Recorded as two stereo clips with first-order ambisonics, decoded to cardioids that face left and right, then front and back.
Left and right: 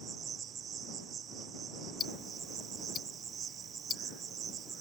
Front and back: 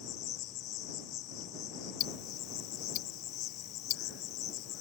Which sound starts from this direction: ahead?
Ticking, at 2.0 s.